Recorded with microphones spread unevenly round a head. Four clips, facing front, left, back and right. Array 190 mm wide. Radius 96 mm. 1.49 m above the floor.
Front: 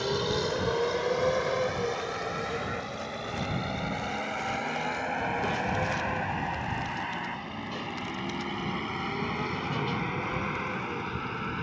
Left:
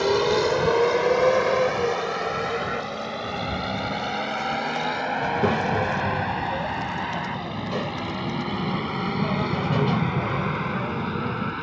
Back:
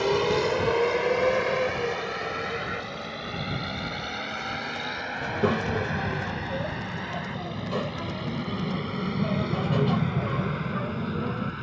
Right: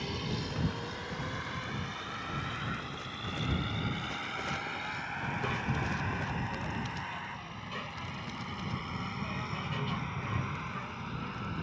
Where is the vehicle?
115° left; by 11.6 s 70° left.